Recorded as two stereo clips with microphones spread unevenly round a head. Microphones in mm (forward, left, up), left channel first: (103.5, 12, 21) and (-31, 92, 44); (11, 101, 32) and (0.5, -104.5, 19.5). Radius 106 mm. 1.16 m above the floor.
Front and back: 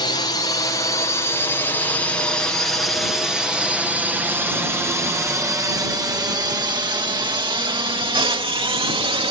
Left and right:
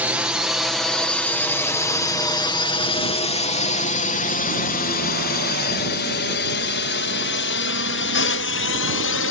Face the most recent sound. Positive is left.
turn(degrees=95)